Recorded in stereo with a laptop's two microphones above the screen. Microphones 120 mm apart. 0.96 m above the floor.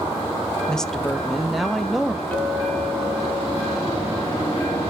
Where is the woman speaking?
5° left (ahead or behind), 0.8 m; by 2.2 s centre (ahead or behind), 1.6 m.